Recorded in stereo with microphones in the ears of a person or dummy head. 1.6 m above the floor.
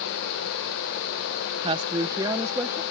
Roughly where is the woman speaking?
Right.